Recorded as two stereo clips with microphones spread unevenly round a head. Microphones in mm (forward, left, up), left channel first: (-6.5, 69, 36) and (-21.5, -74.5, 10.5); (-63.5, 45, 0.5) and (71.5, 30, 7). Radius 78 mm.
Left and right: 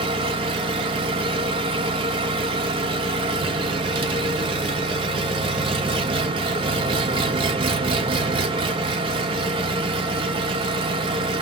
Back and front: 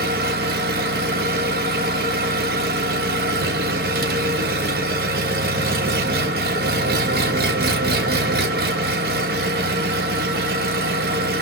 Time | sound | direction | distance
0.0 | an engine running | 35° right | 0.8 m